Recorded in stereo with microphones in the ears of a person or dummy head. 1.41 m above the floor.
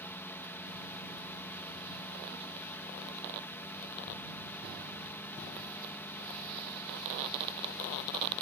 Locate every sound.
0.0 s a drone: 10° left (ahead or behind)